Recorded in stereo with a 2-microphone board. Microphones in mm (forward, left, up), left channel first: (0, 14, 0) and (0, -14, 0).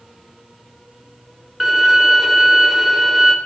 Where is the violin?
5° right (ahead or behind), 1.5 m.